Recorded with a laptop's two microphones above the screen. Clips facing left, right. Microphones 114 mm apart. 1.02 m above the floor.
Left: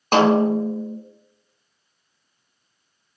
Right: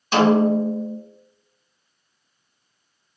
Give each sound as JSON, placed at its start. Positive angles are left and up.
{"t": 0.1, "sound": "a snare drum", "side_deg": 50, "distance_m": 0.7}